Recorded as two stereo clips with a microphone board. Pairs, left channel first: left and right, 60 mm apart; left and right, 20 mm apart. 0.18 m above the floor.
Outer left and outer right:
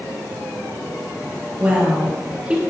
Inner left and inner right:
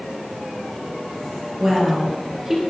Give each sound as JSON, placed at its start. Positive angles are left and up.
{"t": 1.6, "sound": "a woman speaking", "side_deg": -20, "distance_m": 4.0}